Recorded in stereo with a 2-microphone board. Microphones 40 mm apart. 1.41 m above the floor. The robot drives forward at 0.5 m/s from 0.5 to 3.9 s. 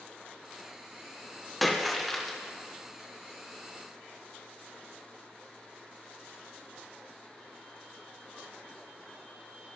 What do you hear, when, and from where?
1.6 s a splash: centre (ahead or behind), 0.9 m